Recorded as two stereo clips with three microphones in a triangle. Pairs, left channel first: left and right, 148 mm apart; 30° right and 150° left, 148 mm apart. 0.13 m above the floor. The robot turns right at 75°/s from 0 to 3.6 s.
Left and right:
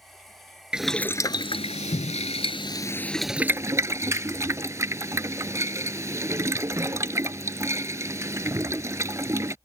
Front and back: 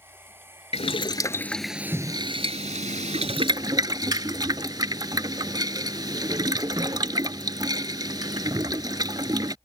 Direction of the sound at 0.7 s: 10° right.